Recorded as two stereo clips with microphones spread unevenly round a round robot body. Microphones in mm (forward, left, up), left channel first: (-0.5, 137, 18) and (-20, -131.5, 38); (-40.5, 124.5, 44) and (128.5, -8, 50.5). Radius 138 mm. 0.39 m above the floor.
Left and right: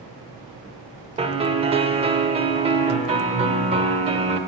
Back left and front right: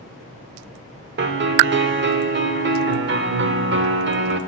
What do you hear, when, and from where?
1.2 s a piano: 25° right, 0.9 m